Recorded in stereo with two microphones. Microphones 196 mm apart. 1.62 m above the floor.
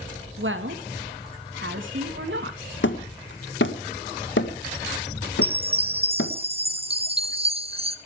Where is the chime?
30° right (ahead or behind), 0.8 m.